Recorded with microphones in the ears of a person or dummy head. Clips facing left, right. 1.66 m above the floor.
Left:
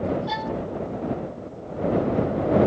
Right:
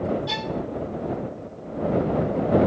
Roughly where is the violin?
Right.